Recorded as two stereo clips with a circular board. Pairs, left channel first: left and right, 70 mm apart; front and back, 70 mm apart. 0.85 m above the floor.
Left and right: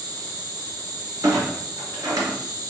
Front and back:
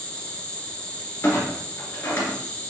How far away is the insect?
About 1.2 m.